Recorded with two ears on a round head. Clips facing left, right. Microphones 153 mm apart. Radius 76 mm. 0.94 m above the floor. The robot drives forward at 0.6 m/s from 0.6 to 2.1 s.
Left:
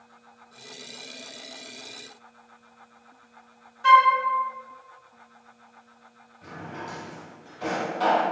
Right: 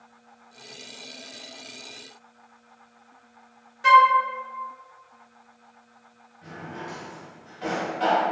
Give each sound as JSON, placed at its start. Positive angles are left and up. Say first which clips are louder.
{"t": 3.8, "sound": "a flute", "louder": "right 1 dB", "side_deg": -20, "distance_m": 0.5}
{"t": 6.4, "sound": "a drawer", "louder": "even", "side_deg": 55, "distance_m": 1.8}